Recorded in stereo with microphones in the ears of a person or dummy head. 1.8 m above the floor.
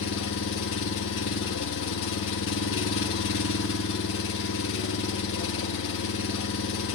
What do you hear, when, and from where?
0.0 s an engine running: 65° left (ahead or behind), 1.4 m